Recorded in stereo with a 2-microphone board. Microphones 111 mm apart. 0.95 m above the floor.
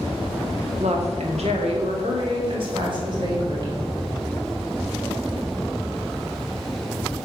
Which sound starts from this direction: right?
A woman speaking, at 0.8 s.